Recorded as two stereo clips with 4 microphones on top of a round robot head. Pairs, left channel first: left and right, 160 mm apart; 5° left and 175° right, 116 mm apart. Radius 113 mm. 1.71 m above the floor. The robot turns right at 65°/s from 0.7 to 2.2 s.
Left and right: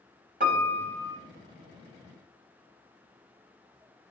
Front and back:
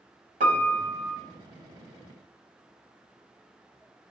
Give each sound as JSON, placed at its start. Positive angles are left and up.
{"t": 0.4, "sound": "a piano", "azimuth_deg": -140, "distance_m": 0.6}